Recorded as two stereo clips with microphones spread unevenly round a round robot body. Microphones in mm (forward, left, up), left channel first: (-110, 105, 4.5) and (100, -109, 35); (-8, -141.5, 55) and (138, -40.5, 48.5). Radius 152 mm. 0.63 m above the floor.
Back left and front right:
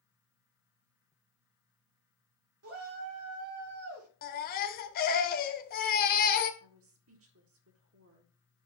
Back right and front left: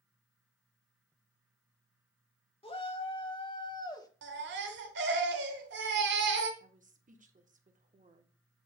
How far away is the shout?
About 2.5 m.